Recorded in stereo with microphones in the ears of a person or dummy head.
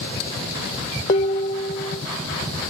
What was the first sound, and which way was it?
Dishes clattering, 20° left (ahead or behind).